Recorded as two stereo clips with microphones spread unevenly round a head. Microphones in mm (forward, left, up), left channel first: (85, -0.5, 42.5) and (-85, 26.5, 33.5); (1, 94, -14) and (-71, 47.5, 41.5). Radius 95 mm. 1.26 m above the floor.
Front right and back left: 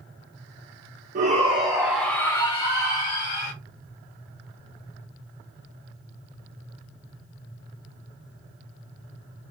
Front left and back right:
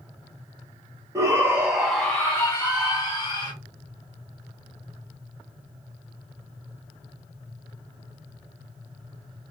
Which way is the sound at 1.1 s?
135° left.